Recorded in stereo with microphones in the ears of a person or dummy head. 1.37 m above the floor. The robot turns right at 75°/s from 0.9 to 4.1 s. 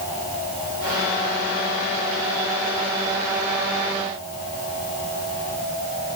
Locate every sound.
Only background noise.